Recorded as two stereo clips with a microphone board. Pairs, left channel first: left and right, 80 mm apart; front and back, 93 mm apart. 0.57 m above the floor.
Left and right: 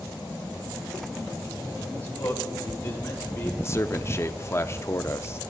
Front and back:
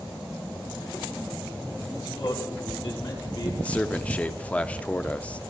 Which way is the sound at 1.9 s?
20° left.